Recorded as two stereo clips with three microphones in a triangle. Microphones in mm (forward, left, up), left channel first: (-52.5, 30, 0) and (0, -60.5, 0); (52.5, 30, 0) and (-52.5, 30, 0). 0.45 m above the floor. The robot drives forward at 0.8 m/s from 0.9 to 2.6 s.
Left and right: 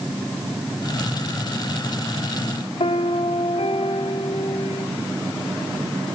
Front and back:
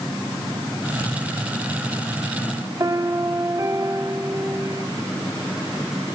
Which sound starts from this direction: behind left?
A piano, at 2.8 s.